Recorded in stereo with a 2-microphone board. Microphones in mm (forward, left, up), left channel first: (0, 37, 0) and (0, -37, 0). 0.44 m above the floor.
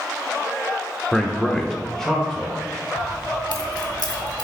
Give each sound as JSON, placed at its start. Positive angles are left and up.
{"t": 1.1, "sound": "a man speaking", "side_deg": 5, "distance_m": 0.8}
{"t": 3.0, "sound": "keys jangling", "side_deg": 70, "distance_m": 1.0}